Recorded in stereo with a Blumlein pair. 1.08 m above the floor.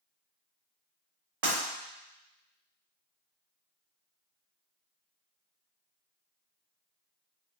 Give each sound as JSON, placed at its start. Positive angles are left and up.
{"t": 1.4, "sound": "breaking glass", "azimuth_deg": -60, "distance_m": 1.4}